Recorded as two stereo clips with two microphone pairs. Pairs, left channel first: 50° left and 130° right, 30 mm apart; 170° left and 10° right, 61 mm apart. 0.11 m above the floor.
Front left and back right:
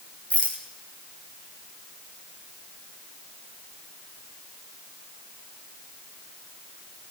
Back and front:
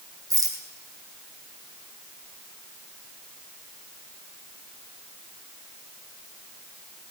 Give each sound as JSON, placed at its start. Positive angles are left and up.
{"t": 0.3, "sound": "a rattle", "azimuth_deg": 5, "distance_m": 2.5}